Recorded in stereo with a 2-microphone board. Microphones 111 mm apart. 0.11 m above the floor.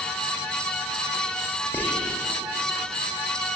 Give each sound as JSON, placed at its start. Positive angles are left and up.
{"t": 1.7, "sound": "whispering", "side_deg": 15, "distance_m": 5.5}